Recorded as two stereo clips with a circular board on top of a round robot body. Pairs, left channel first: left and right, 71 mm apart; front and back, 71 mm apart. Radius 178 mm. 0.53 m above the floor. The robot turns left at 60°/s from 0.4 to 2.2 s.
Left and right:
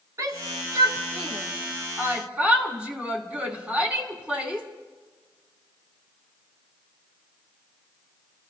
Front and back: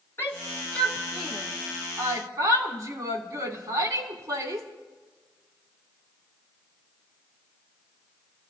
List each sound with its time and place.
0.2 s a shout: 50° right, 3 m; by 4.7 s 160° right, 3 m